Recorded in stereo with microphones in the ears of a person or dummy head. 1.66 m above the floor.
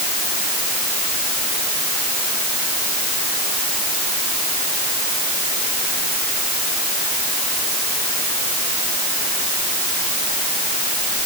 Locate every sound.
Only background noise.